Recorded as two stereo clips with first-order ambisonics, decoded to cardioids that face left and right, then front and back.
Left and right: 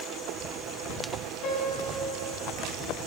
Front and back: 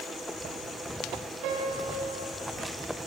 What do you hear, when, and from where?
1.4 s a piano: 145° left, 7.5 m